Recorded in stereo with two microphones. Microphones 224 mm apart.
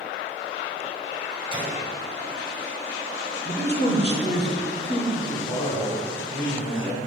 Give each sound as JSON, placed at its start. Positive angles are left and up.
{"t": 1.5, "sound": "a gunshot", "side_deg": -20, "distance_m": 1.8}
{"t": 3.5, "sound": "a man speaking", "side_deg": 50, "distance_m": 1.2}
{"t": 5.2, "sound": "a man speaking", "side_deg": 20, "distance_m": 2.5}